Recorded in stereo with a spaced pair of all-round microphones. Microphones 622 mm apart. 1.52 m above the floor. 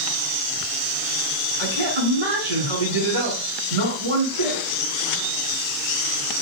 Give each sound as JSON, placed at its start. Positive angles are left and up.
{"t": 1.6, "sound": "a man speaking", "side_deg": -70, "distance_m": 3.0}